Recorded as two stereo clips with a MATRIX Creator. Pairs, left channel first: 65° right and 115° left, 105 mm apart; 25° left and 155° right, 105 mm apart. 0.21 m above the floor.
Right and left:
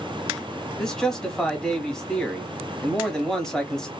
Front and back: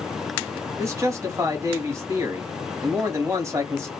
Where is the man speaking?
145° right, 1.2 m.